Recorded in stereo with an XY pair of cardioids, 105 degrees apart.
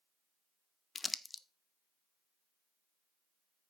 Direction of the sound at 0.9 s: 25° left.